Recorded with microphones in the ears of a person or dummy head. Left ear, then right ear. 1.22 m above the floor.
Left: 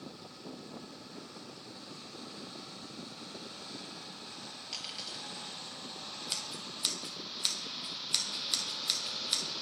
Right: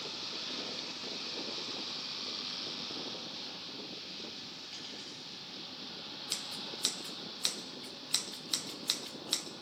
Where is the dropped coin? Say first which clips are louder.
Left 4 dB; 20° left (ahead or behind), 6.5 m.